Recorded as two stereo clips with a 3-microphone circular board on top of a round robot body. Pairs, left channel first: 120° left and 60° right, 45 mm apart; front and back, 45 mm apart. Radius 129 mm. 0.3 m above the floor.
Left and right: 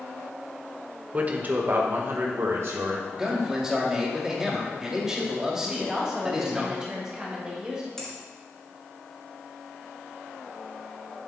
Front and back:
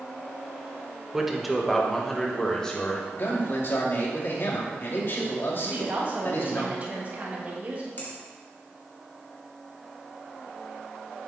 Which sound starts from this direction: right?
A man speaking, at 1.1 s.